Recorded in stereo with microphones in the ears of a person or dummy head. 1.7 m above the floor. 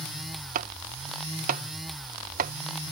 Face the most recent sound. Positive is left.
turn(degrees=-50)  # may be behind; listen again after turning